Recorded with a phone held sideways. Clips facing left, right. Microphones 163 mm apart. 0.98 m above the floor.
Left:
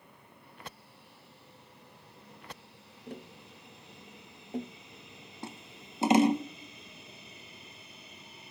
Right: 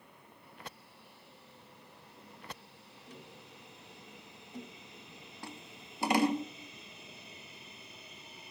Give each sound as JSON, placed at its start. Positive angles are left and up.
{"t": 3.1, "sound": "tapping", "side_deg": 55, "distance_m": 0.8}
{"t": 5.4, "sound": "scissors", "side_deg": 20, "distance_m": 0.8}